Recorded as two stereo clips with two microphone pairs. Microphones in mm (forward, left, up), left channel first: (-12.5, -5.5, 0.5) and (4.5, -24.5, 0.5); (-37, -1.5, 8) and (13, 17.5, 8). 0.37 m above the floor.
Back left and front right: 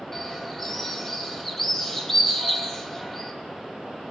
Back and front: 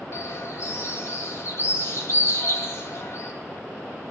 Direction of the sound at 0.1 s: 155° right.